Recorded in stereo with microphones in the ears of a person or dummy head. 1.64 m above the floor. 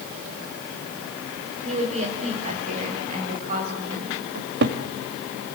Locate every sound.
1.6 s a woman speaking: 45° right (ahead or behind), 6 m; by 4.2 s 50° right (ahead or behind), 7 m
4.3 s a cupboard door: 60° right (ahead or behind), 1.7 m